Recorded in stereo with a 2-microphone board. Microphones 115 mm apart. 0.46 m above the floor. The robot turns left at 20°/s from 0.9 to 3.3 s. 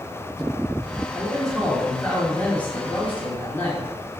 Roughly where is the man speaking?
Centre.